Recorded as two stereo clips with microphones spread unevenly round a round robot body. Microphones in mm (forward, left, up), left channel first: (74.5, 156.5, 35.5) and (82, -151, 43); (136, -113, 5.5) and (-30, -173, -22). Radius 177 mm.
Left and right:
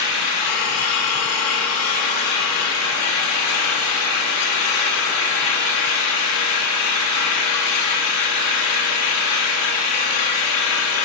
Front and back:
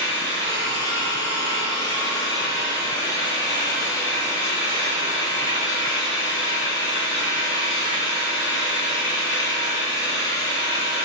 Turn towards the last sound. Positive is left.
turn(degrees=100)